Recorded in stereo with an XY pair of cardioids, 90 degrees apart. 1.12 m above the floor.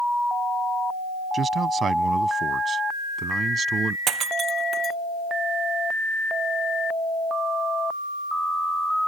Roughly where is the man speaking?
Ahead right.